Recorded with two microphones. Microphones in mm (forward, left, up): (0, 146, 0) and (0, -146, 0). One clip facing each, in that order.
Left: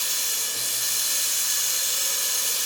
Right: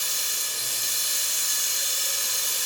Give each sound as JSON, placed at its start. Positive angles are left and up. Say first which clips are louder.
{"t": 0.0, "sound": "running water", "louder": "left 2 dB", "side_deg": 85, "distance_m": 2.5}